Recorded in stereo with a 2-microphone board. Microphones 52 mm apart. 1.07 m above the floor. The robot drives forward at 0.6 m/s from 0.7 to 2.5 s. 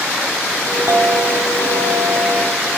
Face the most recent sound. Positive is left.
turn(degrees=-80)